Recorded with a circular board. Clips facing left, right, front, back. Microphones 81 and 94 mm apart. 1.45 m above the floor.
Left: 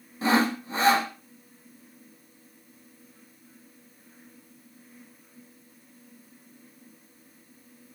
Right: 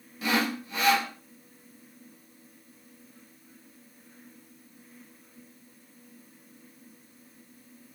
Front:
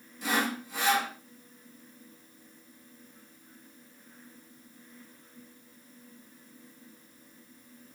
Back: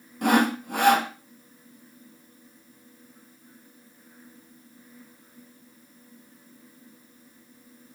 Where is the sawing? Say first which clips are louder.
Left 5 dB, back 9 dB; 145° left, 1.0 m.